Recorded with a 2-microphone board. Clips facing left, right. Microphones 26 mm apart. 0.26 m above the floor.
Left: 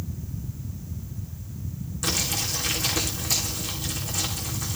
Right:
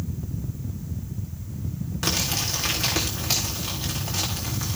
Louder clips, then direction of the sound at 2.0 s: Right 1 dB; 50° right (ahead or behind).